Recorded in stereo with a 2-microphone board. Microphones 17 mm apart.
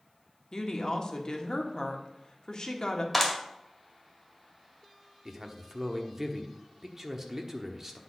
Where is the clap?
Centre (ahead or behind), 1.7 m.